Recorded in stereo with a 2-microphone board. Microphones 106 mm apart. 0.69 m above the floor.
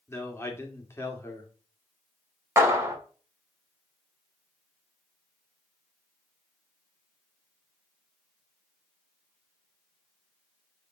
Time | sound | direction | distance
0.1 | a man speaking | 25° left (ahead or behind) | 2 m
2.6 | a clap | 25° right (ahead or behind) | 1.9 m